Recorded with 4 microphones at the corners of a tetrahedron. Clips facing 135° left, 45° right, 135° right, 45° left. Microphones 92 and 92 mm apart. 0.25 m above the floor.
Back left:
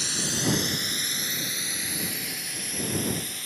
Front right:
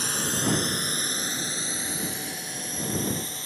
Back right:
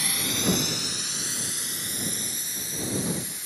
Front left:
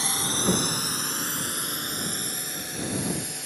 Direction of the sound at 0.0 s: 10° right.